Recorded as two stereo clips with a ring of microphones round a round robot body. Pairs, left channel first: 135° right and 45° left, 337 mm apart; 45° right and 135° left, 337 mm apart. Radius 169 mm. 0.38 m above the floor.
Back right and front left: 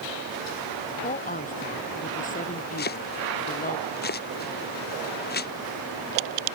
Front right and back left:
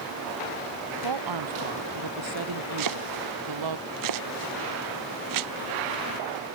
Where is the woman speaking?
160° left.